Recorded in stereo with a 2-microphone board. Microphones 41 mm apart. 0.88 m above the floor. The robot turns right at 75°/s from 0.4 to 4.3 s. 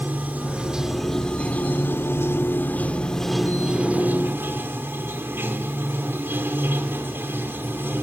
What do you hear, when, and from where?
0.0 s running water: 45° right, 1.8 m; by 8.0 s 110° right, 1.8 m